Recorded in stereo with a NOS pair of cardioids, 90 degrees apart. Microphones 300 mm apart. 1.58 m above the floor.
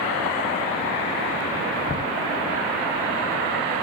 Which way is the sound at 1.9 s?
30° left.